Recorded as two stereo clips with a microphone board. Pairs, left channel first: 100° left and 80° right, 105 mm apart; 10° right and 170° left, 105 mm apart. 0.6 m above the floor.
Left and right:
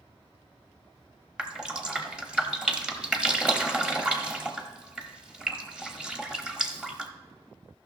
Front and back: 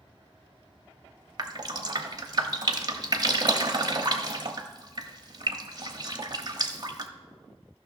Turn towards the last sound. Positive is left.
turn(degrees=-155)